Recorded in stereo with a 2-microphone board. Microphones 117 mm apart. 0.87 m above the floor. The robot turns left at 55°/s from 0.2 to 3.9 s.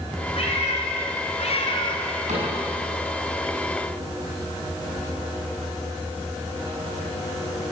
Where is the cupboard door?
80° right, 8.5 m; by 2.5 s 85° right, 8.5 m.